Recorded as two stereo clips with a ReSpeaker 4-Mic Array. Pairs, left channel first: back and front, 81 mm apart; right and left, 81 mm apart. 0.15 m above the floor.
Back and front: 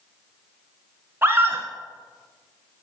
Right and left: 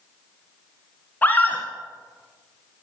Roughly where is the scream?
Ahead right.